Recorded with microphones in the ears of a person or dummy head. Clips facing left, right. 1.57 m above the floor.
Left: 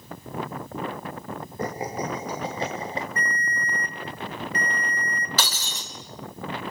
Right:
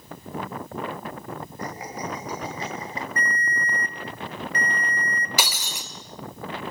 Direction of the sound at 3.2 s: 35° right (ahead or behind).